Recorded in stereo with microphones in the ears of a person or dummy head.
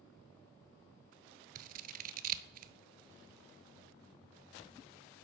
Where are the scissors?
45° right (ahead or behind), 0.8 m.